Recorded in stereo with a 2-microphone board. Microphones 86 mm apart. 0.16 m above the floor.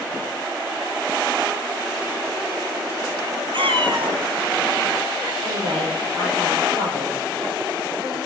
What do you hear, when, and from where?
3.5 s a cat meowing: 70° right (ahead or behind), 0.8 m
5.4 s a woman speaking: 65° right (ahead or behind), 5.5 m